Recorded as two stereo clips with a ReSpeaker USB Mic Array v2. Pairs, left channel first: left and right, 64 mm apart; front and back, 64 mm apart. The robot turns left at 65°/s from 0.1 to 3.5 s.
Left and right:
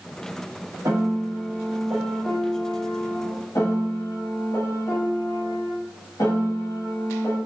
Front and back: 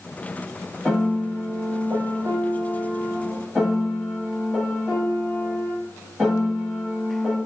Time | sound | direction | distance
0.8 | a piano | 85° right | 1.0 m